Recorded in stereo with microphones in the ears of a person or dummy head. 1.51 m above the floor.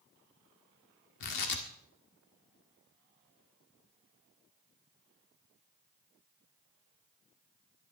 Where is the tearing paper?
55° left (ahead or behind), 1.7 m.